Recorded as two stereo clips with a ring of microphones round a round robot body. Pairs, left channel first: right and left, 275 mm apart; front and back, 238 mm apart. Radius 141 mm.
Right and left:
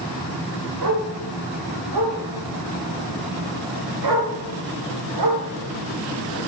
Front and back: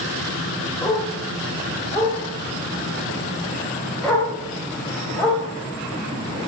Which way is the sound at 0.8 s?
75° left.